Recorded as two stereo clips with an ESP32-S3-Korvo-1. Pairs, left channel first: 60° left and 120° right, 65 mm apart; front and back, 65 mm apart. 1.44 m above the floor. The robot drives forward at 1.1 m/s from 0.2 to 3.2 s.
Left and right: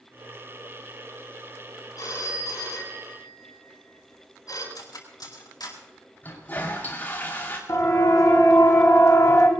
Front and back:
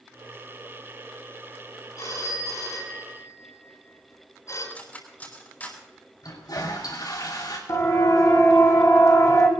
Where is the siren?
30° left, 4 m; by 9.5 s 25° left, 2.5 m.